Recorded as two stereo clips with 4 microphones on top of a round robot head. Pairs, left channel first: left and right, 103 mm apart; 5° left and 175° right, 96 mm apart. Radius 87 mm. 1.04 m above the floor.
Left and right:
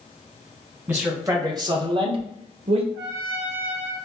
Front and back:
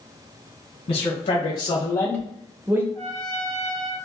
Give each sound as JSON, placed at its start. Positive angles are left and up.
{"t": 0.9, "sound": "a man speaking", "azimuth_deg": -25, "distance_m": 1.4}
{"t": 2.9, "sound": "a trumpet", "azimuth_deg": -65, "distance_m": 1.5}